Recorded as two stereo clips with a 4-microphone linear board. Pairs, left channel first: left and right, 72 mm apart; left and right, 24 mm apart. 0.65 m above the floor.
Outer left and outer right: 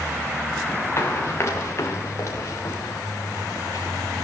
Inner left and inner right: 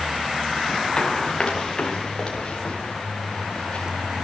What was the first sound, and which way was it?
Running footsteps, 35° left (ahead or behind).